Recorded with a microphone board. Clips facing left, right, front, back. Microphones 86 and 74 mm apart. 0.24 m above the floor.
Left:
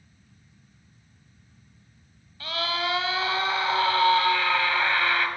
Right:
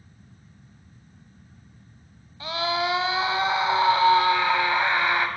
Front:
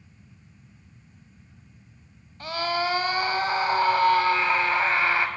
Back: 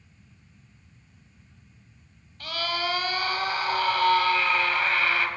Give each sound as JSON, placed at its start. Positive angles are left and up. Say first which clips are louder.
{"t": 2.4, "sound": "a scream", "louder": "right 3 dB, front 4 dB", "azimuth_deg": -40, "distance_m": 1.1}